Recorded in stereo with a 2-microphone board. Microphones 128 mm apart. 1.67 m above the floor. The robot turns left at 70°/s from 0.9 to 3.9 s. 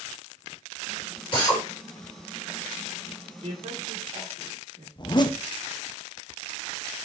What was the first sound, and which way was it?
A drill, 40° left (ahead or behind).